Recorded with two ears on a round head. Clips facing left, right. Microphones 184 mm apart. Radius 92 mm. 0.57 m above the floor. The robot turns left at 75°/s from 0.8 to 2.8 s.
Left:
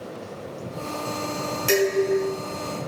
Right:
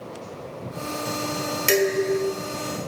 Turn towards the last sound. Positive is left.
turn(degrees=-110)